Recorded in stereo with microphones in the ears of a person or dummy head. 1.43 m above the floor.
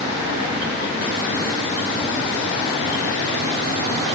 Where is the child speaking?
No child speaking in this recording.